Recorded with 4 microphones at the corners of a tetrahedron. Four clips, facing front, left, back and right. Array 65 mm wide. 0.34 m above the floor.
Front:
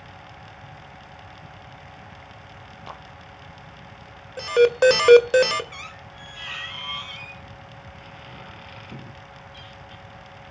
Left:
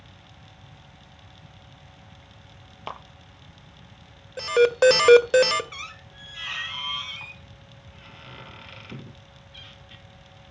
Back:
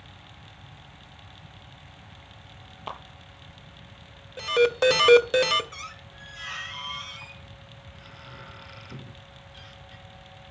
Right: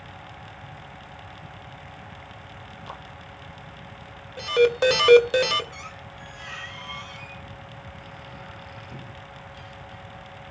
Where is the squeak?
55° left, 3.5 m.